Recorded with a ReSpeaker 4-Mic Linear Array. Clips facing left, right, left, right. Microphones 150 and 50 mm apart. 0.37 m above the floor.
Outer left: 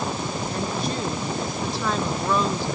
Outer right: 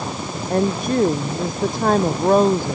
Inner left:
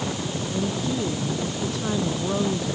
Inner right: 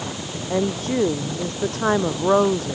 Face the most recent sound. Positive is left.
turn(degrees=-45)  # may be behind; listen again after turning